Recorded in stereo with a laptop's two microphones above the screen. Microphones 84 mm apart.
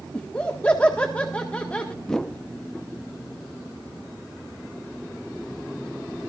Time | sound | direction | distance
0.1 | laughter | 15° left (ahead or behind) | 1.7 m
2.0 | a whoosh | 5° left (ahead or behind) | 0.5 m